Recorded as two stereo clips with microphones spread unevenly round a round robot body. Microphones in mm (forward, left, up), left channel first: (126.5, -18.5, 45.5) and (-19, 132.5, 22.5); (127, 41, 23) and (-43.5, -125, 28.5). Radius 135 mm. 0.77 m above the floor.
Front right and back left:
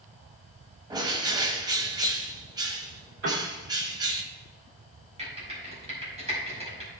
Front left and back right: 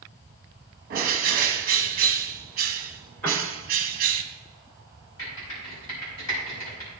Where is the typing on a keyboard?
75° left, 5 m.